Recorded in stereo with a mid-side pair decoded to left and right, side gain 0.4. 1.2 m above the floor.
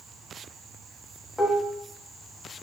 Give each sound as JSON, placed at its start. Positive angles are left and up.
{"t": 1.4, "sound": "dishes clattering", "azimuth_deg": 20, "distance_m": 1.1}